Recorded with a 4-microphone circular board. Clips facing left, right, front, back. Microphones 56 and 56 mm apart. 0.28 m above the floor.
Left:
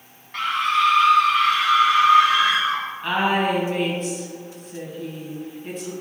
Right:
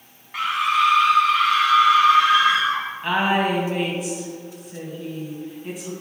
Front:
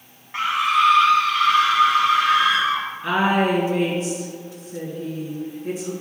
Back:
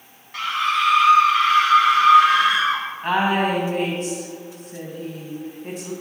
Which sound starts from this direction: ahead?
A scream, at 0.3 s.